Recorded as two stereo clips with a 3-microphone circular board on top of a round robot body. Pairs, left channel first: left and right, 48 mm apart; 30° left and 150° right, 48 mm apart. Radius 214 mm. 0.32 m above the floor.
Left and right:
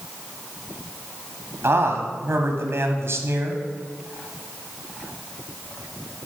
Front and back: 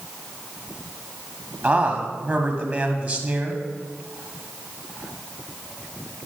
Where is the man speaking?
110° right, 1.7 m.